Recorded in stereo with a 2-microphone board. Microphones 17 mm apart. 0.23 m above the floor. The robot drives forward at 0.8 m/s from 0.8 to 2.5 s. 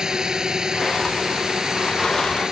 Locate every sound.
0.0 s a drone: 45° right (ahead or behind)